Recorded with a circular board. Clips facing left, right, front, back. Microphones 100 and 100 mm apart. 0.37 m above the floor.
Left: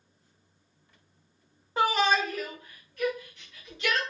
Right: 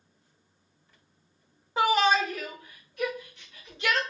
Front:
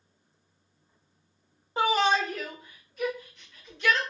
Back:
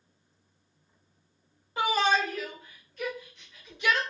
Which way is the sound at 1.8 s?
5° right.